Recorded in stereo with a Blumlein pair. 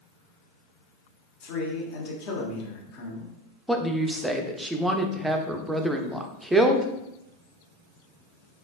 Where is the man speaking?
45° left, 1.3 m.